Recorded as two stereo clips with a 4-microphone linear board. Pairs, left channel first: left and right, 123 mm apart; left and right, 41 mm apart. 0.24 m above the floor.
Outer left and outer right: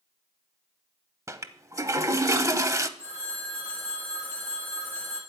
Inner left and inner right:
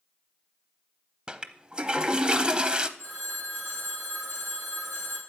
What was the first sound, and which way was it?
A toilet flushing, 25° right (ahead or behind).